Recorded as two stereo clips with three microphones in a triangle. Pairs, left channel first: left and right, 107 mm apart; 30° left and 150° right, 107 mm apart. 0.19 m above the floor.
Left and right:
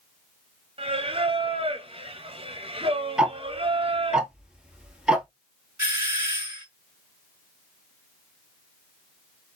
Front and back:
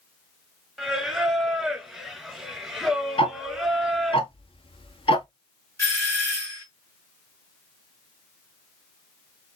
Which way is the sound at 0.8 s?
65° right.